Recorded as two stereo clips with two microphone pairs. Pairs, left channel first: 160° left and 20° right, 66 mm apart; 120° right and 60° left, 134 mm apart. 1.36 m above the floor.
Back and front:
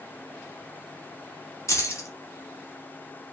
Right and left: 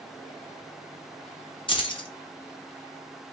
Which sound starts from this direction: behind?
Keys jangling, at 1.7 s.